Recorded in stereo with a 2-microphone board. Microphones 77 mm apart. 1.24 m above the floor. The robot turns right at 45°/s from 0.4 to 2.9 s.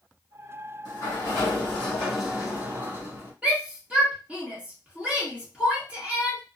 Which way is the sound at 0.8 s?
125° left.